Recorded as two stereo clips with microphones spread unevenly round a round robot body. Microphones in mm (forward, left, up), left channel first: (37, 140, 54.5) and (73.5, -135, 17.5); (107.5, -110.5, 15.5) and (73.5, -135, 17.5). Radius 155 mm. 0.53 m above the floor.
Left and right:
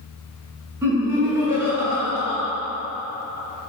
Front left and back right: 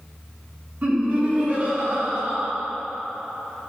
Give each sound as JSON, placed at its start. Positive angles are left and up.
{"t": 0.8, "sound": "laughter", "azimuth_deg": -155, "distance_m": 1.2}